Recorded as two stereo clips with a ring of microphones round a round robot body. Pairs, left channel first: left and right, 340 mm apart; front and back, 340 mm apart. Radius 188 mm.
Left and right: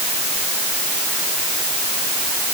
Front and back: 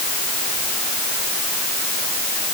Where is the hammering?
No hammering in this recording.